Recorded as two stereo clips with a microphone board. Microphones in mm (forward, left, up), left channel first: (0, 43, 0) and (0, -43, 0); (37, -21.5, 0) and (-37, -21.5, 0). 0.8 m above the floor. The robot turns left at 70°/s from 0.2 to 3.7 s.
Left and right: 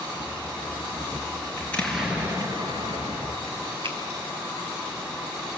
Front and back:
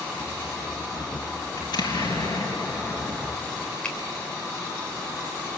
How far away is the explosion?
About 4.5 m.